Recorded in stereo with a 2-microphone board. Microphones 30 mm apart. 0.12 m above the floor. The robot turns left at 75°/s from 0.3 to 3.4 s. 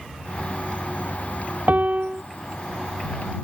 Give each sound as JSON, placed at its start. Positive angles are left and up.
{"t": 1.7, "sound": "a piano", "azimuth_deg": -100}